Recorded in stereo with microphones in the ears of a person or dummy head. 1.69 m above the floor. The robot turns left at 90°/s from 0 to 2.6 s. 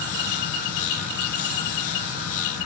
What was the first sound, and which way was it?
Only background noise.